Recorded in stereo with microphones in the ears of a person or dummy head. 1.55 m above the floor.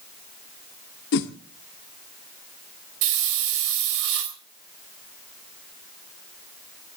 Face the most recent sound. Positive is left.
turn(degrees=-70)  # may be behind; listen again after turning